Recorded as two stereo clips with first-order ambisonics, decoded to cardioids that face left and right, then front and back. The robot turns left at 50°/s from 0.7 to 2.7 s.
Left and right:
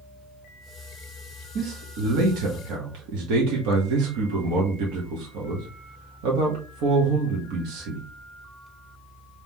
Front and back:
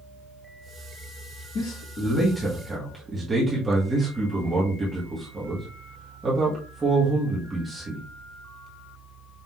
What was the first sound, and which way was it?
A man speaking, 45° right.